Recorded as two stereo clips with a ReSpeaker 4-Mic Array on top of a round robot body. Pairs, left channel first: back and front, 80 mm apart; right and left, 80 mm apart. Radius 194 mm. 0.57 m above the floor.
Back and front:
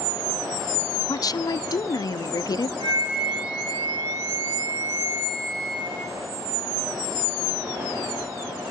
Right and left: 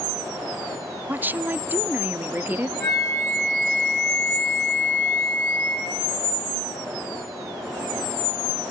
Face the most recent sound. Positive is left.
turn(degrees=-5)